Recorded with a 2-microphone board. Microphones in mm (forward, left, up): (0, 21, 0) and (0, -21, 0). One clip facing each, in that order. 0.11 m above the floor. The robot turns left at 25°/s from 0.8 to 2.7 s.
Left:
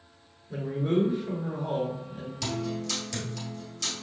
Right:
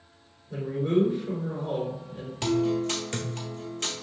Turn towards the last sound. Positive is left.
turn(degrees=-35)  # may be behind; listen again after turning